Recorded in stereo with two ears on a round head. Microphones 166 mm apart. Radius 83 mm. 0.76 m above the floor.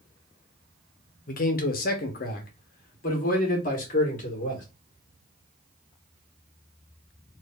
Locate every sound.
1.3 s a man speaking: 45° left (ahead or behind), 1.0 m